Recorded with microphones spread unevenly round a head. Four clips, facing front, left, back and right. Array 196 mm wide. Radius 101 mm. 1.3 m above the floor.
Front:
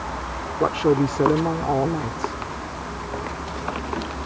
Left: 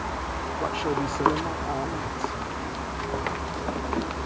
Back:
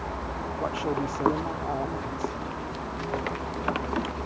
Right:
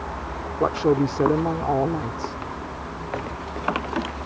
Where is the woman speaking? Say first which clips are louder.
Right 8 dB, front 10 dB; 35° right.